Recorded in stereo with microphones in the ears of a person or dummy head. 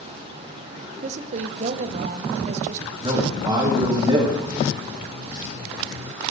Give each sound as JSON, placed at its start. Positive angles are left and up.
{"t": 1.0, "sound": "a woman speaking", "side_deg": -45, "distance_m": 0.8}
{"t": 3.0, "sound": "a man speaking", "side_deg": -20, "distance_m": 2.0}